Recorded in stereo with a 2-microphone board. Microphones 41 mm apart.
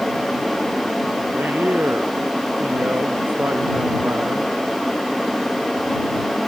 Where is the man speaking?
55° right (ahead or behind); by 4.5 s 70° right (ahead or behind).